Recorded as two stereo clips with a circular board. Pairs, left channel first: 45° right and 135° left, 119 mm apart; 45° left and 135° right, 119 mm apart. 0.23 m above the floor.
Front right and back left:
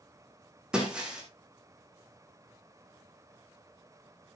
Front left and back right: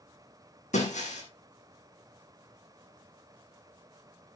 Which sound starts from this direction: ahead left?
Breaking glass, at 0.7 s.